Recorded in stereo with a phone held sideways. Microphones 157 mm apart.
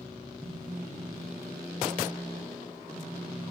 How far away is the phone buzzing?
About 2 m.